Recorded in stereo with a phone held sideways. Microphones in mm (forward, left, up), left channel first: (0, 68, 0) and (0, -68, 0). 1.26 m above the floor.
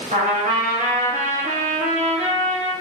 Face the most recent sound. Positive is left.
turn(degrees=-65)  # may be behind; listen again after turning